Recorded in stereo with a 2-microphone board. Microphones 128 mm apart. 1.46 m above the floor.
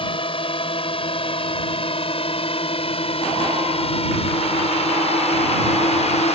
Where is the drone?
40° left (ahead or behind); by 6.4 s 55° left (ahead or behind).